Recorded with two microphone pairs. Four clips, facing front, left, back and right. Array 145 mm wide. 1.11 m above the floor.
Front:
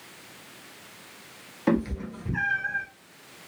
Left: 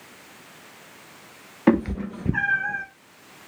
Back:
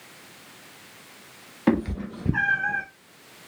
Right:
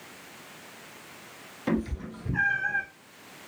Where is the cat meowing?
100° left, 0.9 m; by 2.9 s 175° left, 0.6 m.